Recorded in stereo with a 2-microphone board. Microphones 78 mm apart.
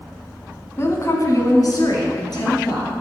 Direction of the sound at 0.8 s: 35° left (ahead or behind).